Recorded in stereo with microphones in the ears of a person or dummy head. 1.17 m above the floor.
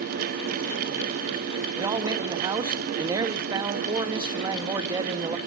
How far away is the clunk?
I don't hear a clunk.